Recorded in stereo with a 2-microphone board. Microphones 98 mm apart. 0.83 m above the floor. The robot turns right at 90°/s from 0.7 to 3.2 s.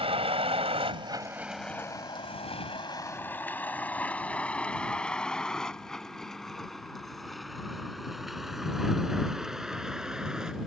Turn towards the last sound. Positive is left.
turn(degrees=-5)  # may be behind; listen again after turning